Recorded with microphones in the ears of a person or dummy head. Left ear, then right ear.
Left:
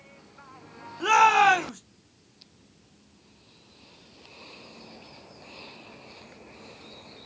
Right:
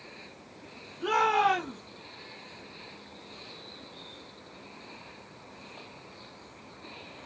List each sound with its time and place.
1.0 s a shout: 65° left (ahead or behind), 1.0 m